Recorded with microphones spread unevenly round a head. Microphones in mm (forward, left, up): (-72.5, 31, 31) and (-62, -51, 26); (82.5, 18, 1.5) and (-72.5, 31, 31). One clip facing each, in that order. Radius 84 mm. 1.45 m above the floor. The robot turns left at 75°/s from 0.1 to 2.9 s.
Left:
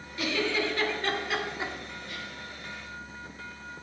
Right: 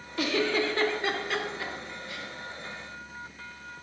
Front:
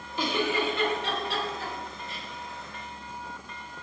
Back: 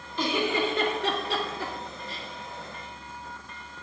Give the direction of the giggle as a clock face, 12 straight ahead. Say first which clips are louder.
Right 2 dB, back 1 dB; 3 o'clock.